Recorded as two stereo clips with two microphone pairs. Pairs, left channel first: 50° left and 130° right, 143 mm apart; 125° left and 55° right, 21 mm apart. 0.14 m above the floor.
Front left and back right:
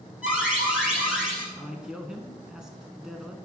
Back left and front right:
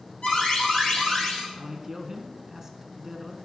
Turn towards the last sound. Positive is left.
turn(degrees=-55)